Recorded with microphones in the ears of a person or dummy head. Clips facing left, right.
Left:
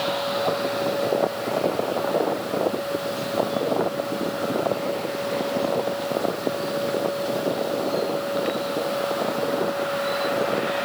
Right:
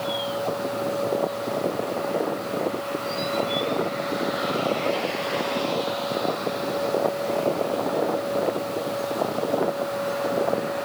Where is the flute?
No flute in this recording.